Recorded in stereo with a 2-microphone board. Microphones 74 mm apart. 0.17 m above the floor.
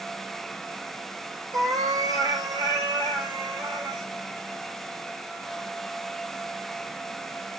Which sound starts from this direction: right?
A cat meowing, at 1.5 s.